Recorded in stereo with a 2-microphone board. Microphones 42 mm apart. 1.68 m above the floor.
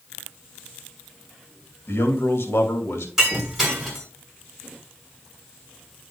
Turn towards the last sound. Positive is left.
turn(degrees=0)  # may be behind; listen again after turning